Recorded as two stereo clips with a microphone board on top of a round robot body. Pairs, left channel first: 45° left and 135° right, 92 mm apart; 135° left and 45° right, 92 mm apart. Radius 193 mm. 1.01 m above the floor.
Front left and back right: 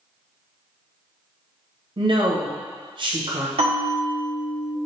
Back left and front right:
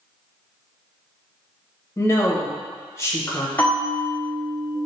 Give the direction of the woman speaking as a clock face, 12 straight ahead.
5 o'clock.